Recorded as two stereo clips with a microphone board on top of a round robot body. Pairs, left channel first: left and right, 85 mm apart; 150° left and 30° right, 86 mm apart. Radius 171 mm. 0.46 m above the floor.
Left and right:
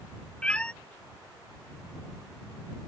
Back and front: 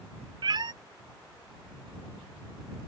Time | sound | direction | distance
0.4 | a cat meowing | 10° left | ?